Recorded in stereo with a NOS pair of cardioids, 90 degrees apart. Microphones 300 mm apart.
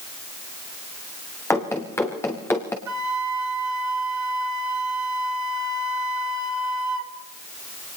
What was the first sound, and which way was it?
Running footsteps, 10° left.